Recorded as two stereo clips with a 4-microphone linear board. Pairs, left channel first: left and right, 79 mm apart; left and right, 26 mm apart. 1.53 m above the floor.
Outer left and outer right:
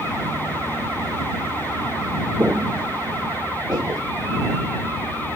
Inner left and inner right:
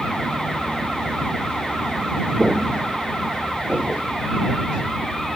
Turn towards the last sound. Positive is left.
turn(degrees=-50)  # may be behind; listen again after turning